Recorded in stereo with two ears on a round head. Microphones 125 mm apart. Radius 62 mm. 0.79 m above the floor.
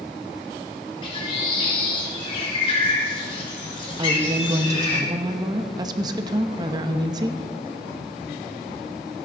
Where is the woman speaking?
30° right (ahead or behind), 0.9 m.